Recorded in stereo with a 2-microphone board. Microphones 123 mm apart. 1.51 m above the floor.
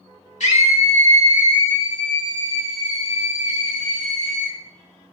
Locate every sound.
0.4 s a scream: 80° left, 2.5 m